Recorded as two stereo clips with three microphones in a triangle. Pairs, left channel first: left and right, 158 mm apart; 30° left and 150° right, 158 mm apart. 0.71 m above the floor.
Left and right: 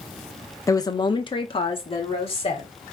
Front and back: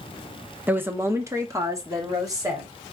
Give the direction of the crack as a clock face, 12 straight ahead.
I don't hear a crack.